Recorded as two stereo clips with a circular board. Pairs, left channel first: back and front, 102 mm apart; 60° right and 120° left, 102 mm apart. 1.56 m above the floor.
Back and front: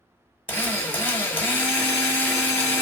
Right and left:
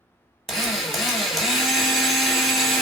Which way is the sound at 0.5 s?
150° right.